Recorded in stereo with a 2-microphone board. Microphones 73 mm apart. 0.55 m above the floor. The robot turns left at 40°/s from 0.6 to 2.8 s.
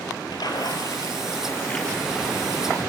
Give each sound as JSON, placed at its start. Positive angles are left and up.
{"t": 0.3, "sound": "a splash", "azimuth_deg": 60, "distance_m": 4.0}